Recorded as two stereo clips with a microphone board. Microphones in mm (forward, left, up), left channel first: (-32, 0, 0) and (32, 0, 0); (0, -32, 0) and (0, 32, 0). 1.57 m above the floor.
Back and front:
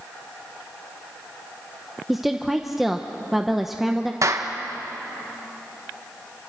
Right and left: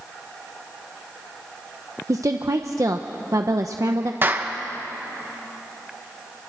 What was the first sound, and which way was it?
A woman speaking, 85° left.